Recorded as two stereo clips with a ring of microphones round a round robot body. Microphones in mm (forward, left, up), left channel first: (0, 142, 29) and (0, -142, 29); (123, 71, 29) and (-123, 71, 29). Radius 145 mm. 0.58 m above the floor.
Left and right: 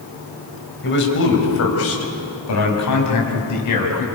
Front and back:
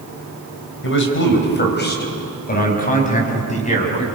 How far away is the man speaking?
About 4 m.